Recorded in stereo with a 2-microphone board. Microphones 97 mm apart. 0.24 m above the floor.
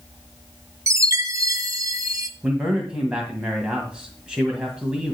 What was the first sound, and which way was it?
A chime, 35° right (ahead or behind).